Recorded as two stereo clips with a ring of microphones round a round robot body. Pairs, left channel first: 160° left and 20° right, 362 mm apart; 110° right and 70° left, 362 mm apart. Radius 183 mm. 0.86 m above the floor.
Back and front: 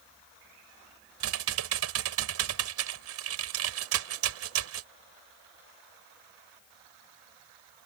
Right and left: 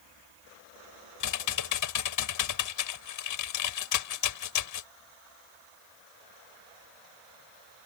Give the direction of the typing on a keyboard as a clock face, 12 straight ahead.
2 o'clock.